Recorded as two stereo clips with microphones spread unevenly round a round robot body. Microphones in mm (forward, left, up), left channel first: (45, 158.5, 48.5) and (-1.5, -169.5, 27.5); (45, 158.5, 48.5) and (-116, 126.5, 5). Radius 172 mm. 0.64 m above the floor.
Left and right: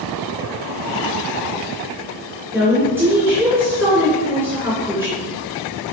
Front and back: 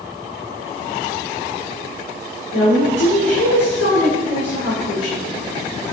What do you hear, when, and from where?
2.5 s a woman speaking: 15° right, 2.5 m